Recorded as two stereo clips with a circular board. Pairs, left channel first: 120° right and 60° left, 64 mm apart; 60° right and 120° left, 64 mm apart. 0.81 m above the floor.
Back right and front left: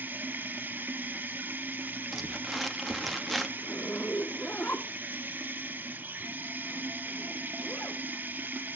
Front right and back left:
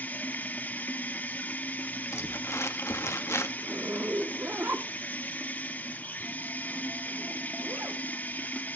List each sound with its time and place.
0.0 s running water: straight ahead, 1.3 m
2.1 s crumpling: 30° right, 1.4 m
3.6 s a zipper: 175° left, 1.2 m